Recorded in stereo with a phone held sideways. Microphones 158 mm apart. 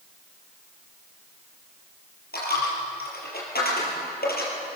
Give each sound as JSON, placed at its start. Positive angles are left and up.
{"t": 2.3, "sound": "a dropped coin", "side_deg": 80, "distance_m": 5.5}